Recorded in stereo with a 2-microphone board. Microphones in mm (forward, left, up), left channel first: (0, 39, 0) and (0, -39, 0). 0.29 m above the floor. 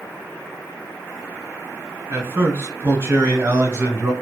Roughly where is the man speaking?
Right.